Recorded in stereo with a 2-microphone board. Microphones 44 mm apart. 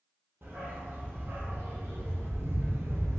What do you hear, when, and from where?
0.4 s a dog barking: 60° right (ahead or behind), 3 m; by 3.2 s 80° right, 1.6 m